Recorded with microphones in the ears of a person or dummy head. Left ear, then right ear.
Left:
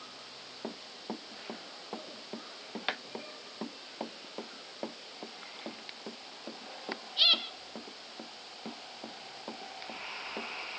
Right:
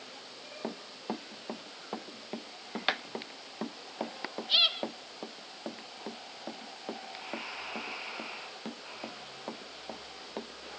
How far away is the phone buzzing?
I don't hear a phone buzzing.